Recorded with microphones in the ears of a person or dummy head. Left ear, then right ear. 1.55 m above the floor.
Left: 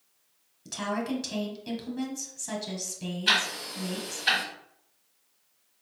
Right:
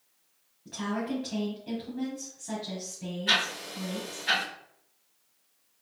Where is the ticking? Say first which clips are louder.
Left 1 dB; 40° left (ahead or behind), 1.5 m.